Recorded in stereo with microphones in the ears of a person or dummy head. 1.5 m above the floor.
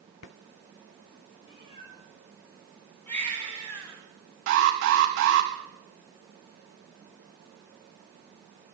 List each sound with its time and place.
1.4 s a cat meowing: 25° left (ahead or behind), 9.5 m
3.1 s a baby crying: 5° left (ahead or behind), 9 m
4.5 s an alarm: 70° right (ahead or behind), 5 m